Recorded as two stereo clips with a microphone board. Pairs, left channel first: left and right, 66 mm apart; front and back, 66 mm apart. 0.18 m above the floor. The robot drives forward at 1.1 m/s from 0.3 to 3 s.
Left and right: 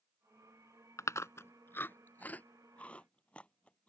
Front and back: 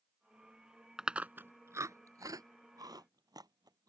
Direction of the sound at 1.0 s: 100° left.